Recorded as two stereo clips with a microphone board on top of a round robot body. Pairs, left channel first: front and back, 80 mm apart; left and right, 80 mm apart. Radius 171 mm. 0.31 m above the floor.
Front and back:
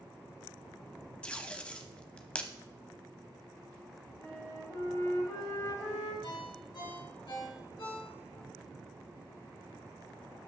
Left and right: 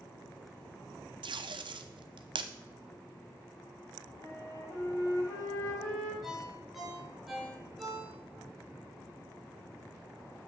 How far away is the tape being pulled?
About 0.7 m.